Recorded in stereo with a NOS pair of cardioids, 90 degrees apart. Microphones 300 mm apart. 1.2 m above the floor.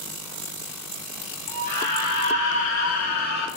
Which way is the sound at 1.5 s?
20° left.